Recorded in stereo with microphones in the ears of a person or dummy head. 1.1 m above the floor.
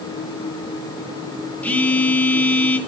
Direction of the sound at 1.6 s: 10° left (ahead or behind).